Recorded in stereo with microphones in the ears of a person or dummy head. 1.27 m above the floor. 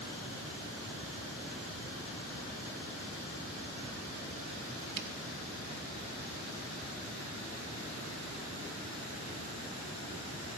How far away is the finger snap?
About 1.0 m.